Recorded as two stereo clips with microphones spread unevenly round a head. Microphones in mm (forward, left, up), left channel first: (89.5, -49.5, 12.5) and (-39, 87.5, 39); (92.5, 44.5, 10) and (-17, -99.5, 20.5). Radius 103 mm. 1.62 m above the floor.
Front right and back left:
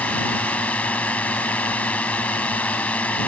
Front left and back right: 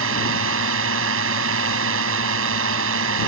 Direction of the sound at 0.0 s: 130° right.